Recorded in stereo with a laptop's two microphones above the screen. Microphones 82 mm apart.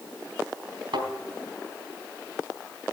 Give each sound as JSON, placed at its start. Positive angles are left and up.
{"t": 0.9, "sound": "a thud", "side_deg": -75, "distance_m": 4.0}